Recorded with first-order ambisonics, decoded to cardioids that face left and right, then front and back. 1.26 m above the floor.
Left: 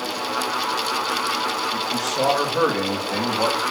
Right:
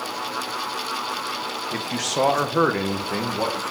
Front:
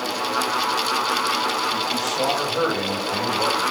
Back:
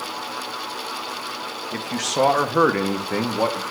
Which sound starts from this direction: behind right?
A man speaking, at 1.7 s.